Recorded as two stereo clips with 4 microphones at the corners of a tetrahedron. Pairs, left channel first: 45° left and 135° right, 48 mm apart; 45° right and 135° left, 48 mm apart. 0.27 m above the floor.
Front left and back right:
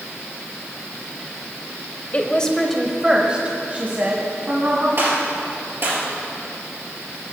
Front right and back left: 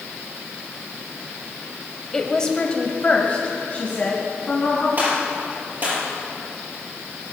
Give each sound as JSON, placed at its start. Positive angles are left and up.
{"t": 2.1, "sound": "a woman speaking", "azimuth_deg": 30, "distance_m": 1.0}
{"t": 5.0, "sound": "a gunshot", "azimuth_deg": -175, "distance_m": 4.0}